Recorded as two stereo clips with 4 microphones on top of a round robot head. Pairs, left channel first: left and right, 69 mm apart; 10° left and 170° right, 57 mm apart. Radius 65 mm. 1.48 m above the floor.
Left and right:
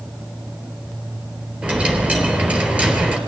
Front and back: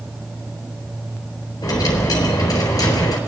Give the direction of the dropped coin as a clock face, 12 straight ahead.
1 o'clock.